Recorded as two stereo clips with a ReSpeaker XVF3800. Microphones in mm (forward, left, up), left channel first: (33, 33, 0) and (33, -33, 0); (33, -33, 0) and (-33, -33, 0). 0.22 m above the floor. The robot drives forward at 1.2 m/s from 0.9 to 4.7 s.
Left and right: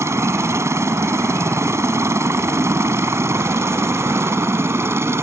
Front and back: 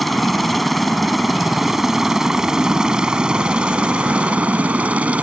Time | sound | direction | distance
0.0 | a helicopter | 90° right | ?